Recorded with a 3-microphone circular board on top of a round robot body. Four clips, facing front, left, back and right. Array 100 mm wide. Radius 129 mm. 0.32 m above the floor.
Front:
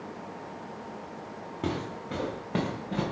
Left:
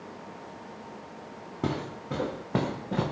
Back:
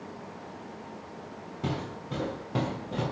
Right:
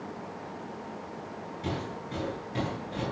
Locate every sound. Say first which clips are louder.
1.6 s footsteps: left 4 dB, front 1 dB; 75° left, 4 m; by 3.0 s 80° left, 3 m